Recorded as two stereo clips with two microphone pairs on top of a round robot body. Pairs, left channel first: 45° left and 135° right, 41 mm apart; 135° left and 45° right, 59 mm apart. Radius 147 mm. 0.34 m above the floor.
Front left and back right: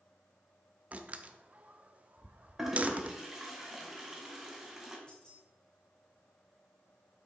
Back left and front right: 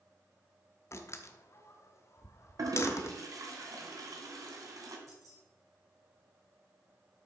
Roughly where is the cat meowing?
I don't hear a cat meowing.